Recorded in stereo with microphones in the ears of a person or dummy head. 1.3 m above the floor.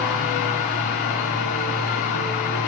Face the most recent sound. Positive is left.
turn(degrees=45)  # may be behind; listen again after turning